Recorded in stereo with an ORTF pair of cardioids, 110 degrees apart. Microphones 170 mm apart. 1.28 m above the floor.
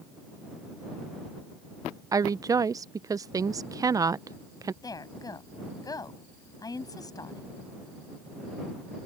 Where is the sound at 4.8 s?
20° left.